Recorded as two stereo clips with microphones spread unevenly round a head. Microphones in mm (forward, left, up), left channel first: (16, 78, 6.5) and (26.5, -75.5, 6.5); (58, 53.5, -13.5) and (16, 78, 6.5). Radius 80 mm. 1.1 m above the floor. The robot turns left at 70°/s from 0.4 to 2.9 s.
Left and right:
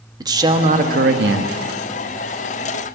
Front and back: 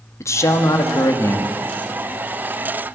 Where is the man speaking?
20° right, 1.4 m; by 1.6 s 100° right, 1.4 m.